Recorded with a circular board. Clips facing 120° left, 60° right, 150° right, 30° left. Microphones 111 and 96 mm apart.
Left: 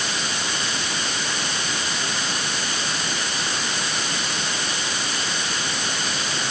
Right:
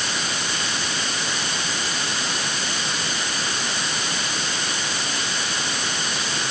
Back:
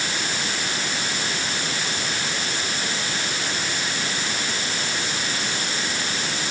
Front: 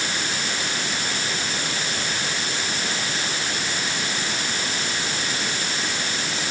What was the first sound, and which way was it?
Only background noise.